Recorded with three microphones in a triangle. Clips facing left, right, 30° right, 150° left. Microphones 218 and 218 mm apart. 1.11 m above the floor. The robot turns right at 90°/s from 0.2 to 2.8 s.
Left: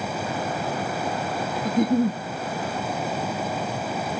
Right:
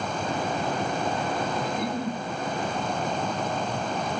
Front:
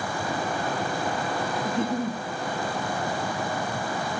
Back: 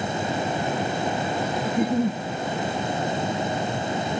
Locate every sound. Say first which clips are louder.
1.6 s a giggle: left 8 dB, back 6 dB; 65° left, 0.9 m; by 2.2 s 115° left, 0.9 m